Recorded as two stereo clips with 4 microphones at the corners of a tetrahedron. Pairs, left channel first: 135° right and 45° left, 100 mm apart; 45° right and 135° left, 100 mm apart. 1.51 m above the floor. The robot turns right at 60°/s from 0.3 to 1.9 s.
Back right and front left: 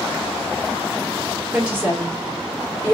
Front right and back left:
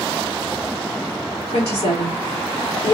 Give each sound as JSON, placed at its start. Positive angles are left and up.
{"t": 1.5, "sound": "a woman speaking", "azimuth_deg": -40, "distance_m": 2.5}